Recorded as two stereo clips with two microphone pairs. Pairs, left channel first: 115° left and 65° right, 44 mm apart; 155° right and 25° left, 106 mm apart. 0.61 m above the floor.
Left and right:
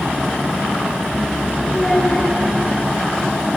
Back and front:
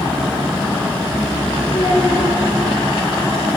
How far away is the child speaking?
About 7 m.